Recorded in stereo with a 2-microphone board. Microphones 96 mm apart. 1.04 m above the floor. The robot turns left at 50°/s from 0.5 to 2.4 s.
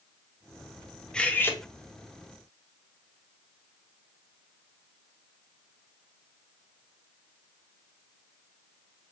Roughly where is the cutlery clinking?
Centre.